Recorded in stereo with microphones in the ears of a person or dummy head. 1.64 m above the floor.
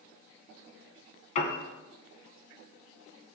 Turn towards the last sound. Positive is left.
turn(degrees=40)  # may be behind; listen again after turning